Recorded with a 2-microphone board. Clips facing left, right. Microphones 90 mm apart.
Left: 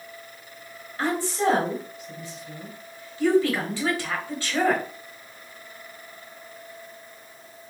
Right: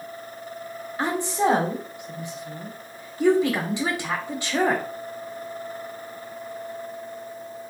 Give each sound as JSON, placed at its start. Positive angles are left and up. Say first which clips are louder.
{"t": 1.0, "sound": "a woman speaking", "louder": "right 1 dB", "side_deg": -20, "distance_m": 1.2}